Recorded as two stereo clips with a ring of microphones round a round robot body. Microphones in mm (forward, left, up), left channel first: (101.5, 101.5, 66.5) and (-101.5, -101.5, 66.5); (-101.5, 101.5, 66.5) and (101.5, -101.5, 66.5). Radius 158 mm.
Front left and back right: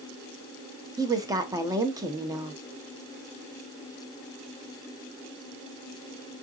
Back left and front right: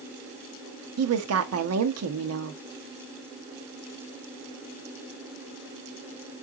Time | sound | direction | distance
1.0 | a woman speaking | 60° right | 0.8 m